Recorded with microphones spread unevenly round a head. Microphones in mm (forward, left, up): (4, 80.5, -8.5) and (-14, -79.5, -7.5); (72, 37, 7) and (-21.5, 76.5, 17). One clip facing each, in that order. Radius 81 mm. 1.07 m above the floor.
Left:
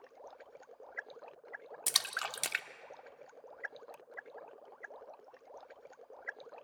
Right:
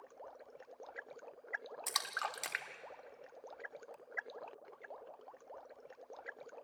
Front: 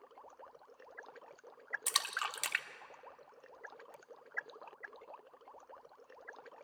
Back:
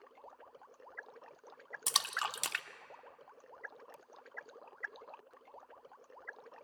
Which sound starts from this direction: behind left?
A splash, at 1.9 s.